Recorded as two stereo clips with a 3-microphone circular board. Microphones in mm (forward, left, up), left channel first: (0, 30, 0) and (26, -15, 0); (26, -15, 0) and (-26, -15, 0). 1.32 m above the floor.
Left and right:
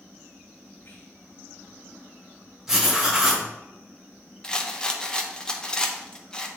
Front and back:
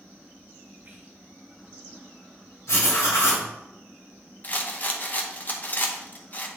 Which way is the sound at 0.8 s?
135° left.